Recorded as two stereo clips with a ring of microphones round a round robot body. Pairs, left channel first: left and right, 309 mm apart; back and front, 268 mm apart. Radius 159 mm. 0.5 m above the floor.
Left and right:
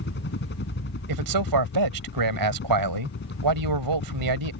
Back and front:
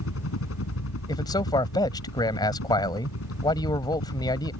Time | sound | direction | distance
0.0 | a helicopter | 145° left | ?
1.1 | a man speaking | 105° right | ?